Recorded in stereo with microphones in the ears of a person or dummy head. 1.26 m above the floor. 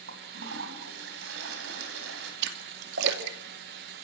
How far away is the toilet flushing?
About 3.5 m.